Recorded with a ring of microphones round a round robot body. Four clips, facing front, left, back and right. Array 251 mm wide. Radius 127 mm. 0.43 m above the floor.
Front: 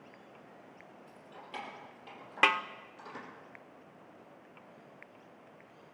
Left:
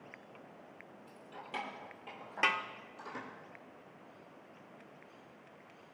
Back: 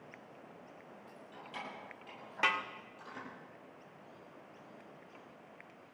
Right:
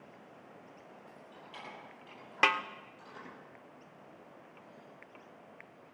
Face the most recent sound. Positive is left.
turn(degrees=-35)